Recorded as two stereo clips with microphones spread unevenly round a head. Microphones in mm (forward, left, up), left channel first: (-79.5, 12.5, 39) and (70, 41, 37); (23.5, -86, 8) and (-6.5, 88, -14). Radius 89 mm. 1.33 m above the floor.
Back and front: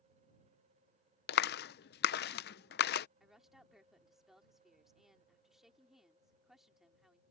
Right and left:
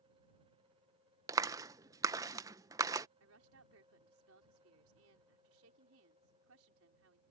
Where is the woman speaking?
100° left.